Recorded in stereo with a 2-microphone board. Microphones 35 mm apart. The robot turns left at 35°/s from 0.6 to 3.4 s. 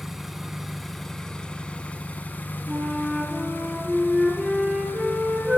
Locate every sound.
0.0 s an engine running: 175° right, 0.9 m; by 5.6 s 85° left, 0.9 m
2.7 s a flute: 5° left (ahead or behind), 4 m; by 5.6 s 20° right (ahead or behind), 4 m